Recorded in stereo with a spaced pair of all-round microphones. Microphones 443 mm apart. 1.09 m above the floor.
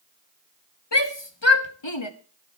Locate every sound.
0.9 s a shout: 65° left (ahead or behind), 1.9 m; by 2.1 s 80° left, 1.7 m